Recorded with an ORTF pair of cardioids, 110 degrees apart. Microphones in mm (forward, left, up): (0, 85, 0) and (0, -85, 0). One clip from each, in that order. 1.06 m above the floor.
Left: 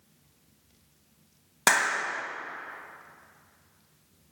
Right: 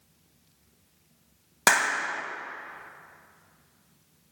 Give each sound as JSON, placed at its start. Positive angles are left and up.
{"t": 1.7, "sound": "a clap", "azimuth_deg": -10, "distance_m": 0.9}